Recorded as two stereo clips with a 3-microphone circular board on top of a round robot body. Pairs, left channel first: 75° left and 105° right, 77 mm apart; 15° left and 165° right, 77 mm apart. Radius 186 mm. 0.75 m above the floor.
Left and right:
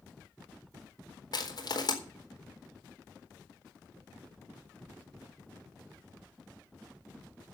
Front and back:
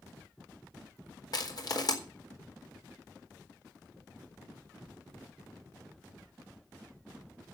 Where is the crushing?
45° left, 4 m.